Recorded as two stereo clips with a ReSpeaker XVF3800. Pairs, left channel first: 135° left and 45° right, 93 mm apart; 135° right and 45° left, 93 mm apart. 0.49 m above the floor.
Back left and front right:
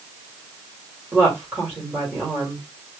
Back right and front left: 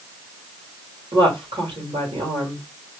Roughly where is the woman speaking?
Ahead left.